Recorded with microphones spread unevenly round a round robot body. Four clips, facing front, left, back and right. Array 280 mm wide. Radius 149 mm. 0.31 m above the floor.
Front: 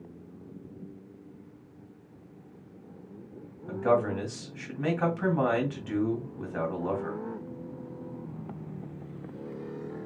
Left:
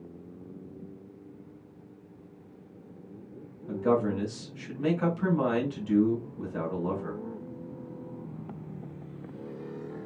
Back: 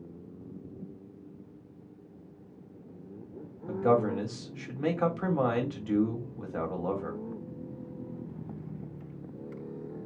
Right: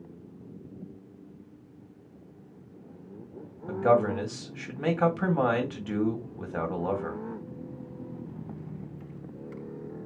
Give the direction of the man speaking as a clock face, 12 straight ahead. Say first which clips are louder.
Right 3 dB, even; 3 o'clock.